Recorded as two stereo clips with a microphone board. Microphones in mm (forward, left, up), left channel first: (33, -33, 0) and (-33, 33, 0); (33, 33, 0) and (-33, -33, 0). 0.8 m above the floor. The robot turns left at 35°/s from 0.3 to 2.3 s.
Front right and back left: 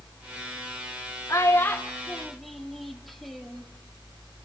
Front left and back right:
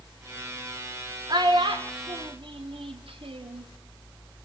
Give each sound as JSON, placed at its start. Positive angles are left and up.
{"t": 1.3, "sound": "a child speaking", "azimuth_deg": -100, "distance_m": 1.4}